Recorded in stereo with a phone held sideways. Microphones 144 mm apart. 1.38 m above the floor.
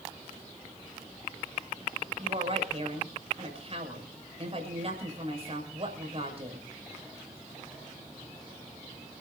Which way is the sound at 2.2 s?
45° right (ahead or behind).